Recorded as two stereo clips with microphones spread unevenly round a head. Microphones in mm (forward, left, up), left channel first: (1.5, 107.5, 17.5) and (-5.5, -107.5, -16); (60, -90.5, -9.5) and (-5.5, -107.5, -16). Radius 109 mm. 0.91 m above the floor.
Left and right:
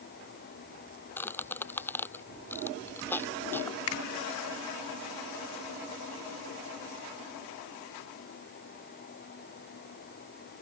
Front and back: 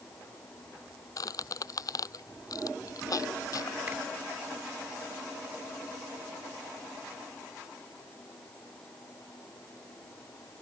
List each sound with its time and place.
1.2 s a squeak: 15° left
3.9 s a finger snap: 115° left